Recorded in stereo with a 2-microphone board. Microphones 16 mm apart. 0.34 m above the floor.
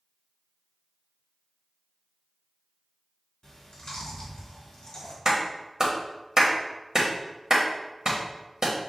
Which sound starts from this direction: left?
Chewing, at 3.4 s.